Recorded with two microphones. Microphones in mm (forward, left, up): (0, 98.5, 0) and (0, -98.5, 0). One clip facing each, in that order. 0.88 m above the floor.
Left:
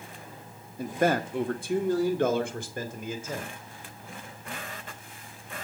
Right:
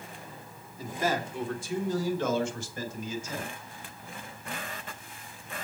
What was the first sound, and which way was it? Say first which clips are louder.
A man speaking: left 5 dB; 60° left (ahead or behind).